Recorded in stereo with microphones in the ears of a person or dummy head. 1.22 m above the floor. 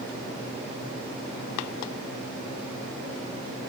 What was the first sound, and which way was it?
Only background noise.